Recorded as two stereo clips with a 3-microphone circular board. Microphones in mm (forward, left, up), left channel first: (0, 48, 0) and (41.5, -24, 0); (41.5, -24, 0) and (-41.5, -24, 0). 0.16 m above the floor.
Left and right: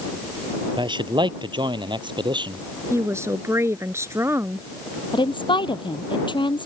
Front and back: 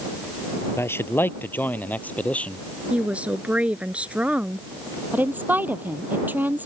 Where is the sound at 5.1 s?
115° left.